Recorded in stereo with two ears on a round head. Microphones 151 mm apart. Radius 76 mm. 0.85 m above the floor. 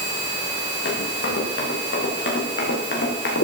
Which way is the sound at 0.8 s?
65° left (ahead or behind).